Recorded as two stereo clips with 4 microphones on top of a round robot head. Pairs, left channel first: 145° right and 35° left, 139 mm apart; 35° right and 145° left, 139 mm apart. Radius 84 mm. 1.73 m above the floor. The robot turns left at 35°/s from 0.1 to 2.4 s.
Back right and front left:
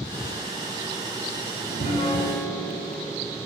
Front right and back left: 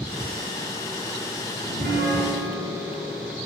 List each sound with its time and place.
1.6 s a piano: straight behind, 3.5 m; by 3.5 s 155° left, 3.5 m